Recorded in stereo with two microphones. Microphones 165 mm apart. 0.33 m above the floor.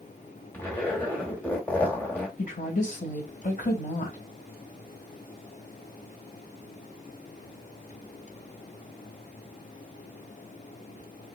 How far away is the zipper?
About 1.8 m.